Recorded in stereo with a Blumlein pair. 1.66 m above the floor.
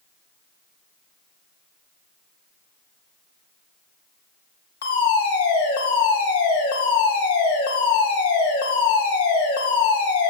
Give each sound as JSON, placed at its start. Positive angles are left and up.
{"t": 4.8, "sound": "a fire alarm", "azimuth_deg": 60, "distance_m": 5.0}